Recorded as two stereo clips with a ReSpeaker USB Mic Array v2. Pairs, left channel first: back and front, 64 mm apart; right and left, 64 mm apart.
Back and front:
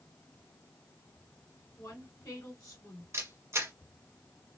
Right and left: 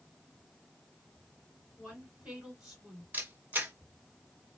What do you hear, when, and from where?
1.8 s a woman speaking: 165° left, 2.5 m
3.1 s a camera shutter: 35° left, 1.0 m